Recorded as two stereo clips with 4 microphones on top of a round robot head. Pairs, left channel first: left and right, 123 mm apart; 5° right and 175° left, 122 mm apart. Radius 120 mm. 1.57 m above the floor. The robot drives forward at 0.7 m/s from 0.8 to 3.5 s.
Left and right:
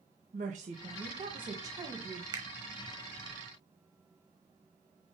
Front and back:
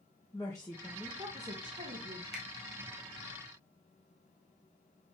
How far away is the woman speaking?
About 0.5 m.